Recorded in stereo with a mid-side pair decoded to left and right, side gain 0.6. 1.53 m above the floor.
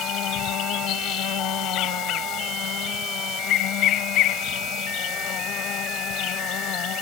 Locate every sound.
0.0 s an insect: 65° left